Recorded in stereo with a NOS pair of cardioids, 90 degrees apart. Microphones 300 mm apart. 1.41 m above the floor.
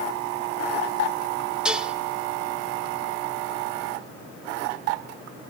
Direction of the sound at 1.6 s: 5° right.